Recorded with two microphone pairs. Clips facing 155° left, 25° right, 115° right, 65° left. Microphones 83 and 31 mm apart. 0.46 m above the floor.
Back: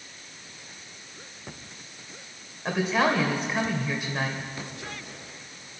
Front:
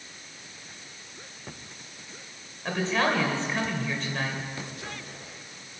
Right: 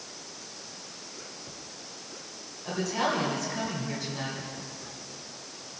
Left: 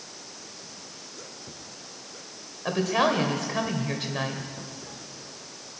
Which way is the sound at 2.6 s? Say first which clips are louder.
Back 2 dB, left 5 dB; 80° left.